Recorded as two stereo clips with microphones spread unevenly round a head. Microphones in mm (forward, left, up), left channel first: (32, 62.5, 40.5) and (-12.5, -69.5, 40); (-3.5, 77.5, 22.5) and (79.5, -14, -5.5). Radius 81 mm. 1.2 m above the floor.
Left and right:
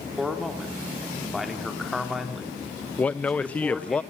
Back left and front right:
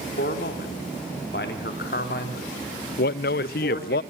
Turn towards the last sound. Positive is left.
turn(degrees=150)